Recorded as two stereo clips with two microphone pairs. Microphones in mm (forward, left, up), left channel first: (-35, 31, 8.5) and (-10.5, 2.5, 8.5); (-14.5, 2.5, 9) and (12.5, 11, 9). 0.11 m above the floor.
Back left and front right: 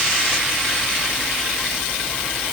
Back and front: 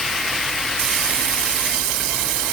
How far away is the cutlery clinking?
I don't hear cutlery clinking.